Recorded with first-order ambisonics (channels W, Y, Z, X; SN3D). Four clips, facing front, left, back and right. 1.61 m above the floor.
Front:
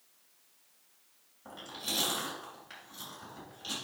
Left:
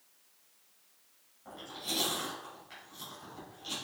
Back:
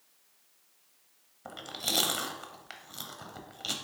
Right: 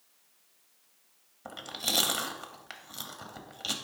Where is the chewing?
125° right, 0.8 m.